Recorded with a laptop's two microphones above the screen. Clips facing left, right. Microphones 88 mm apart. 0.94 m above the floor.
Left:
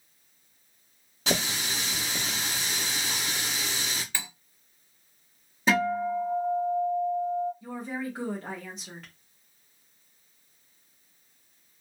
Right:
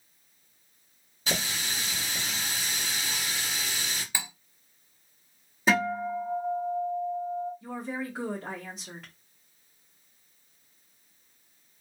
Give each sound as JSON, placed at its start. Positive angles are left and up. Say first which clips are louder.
{"t": 1.3, "sound": "a running tap", "louder": "left 3 dB", "side_deg": 75, "distance_m": 1.3}
{"t": 4.1, "sound": "cutlery clinking", "louder": "right 1 dB", "side_deg": -10, "distance_m": 0.7}
{"t": 5.7, "sound": "a guitar", "louder": "left 1 dB", "side_deg": -5, "distance_m": 1.2}
{"t": 7.6, "sound": "a woman speaking", "louder": "even", "side_deg": -5, "distance_m": 0.9}